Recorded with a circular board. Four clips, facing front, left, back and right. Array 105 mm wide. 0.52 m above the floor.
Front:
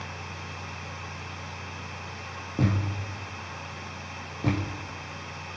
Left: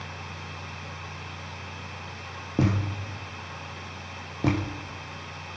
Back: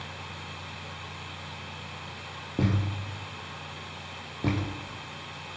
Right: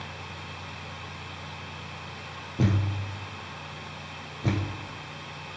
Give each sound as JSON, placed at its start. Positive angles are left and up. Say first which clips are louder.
{"t": 2.6, "sound": "a thud", "louder": "left 2 dB, front 1 dB", "azimuth_deg": 95, "distance_m": 5.5}